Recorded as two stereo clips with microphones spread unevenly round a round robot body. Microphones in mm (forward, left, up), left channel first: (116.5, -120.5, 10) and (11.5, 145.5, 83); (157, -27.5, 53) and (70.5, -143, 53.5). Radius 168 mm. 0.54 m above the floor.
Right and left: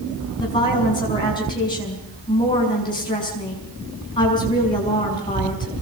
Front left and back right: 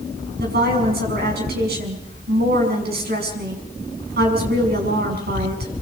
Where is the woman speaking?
145° right, 6 m.